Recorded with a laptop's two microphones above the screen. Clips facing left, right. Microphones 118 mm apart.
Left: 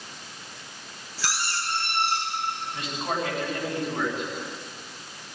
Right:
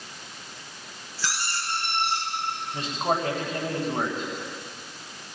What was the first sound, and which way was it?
A squeak, 85° left.